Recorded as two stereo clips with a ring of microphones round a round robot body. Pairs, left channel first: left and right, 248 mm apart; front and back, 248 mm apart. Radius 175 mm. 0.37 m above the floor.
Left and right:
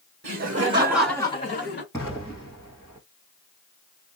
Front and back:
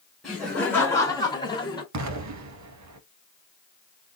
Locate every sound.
0.2 s laughter: 90° right, 1.2 m; by 1.8 s 65° left, 1.2 m
1.9 s an explosion: 170° left, 1.0 m